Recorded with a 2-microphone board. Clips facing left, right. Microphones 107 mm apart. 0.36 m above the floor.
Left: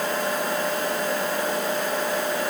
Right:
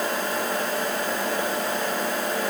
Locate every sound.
Only background noise.